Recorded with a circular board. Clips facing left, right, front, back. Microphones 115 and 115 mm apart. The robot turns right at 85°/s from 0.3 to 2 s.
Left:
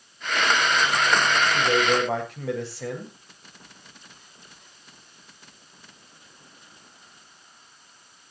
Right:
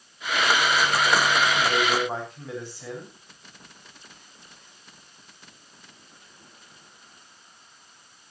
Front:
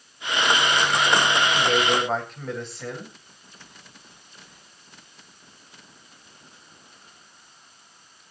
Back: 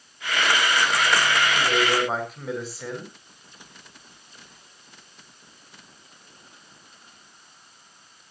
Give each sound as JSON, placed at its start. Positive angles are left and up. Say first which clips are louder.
{"t": 1.5, "sound": "a man speaking", "louder": "left 2 dB, front 1 dB", "azimuth_deg": 55, "distance_m": 7.5}